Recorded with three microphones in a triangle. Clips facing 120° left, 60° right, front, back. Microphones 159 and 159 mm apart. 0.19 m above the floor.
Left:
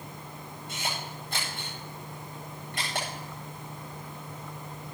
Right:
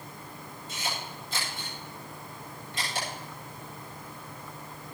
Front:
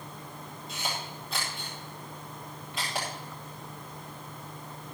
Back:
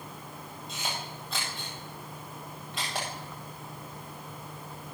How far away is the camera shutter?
About 9.5 m.